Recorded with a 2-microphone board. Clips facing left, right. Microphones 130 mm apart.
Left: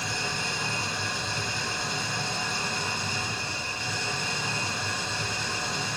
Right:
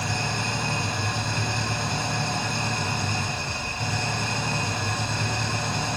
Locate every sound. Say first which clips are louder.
0.0 s an engine running: right 4 dB; 60° right (ahead or behind), 1.1 m